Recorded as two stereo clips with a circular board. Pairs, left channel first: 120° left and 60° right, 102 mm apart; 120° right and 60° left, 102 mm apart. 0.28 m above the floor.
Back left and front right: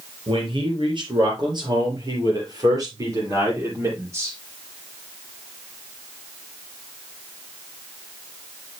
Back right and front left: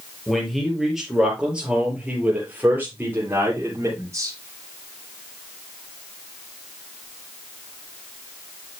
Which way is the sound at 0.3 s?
35° right.